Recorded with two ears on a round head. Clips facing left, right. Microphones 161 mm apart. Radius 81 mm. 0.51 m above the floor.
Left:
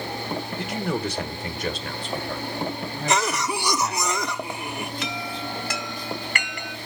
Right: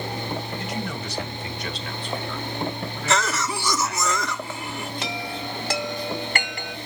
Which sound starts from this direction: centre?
A cough, at 3.1 s.